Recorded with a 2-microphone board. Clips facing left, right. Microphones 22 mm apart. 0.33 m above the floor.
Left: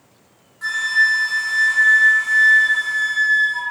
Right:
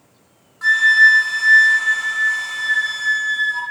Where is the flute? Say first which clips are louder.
Right 6 dB; 15° right (ahead or behind), 1.0 m.